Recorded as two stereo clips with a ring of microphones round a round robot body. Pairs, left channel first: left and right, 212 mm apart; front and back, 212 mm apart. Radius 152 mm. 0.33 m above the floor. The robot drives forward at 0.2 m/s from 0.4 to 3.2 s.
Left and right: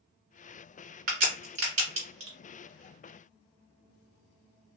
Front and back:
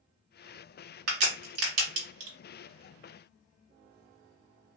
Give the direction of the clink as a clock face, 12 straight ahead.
I don't hear a clink.